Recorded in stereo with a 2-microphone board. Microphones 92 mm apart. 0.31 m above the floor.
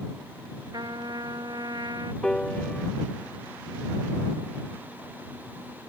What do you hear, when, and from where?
0.7 s a trumpet: 50° right (ahead or behind)
2.2 s a piano: 10° left (ahead or behind)